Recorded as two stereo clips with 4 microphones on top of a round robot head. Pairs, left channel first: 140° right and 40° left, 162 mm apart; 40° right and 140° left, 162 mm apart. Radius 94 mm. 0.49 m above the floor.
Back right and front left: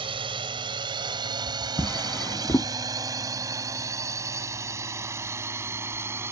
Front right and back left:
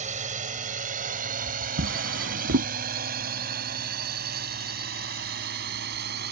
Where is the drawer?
145° left.